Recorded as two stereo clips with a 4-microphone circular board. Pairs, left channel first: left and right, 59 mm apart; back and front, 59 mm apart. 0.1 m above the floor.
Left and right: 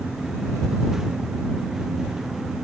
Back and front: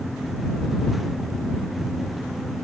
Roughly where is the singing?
No singing in this recording.